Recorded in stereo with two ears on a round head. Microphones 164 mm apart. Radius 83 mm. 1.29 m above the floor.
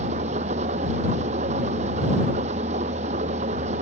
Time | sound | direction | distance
0.0 | an engine running | 35° right (ahead or behind) | ?